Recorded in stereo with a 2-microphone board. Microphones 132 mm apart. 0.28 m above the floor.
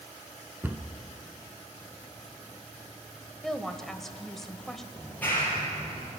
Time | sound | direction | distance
0.6 | a cupboard door | 15° right (ahead or behind) | 1.3 m
3.4 | a woman speaking | 5° left (ahead or behind) | 1.0 m
4.9 | a clap | 15° left (ahead or behind) | 5.5 m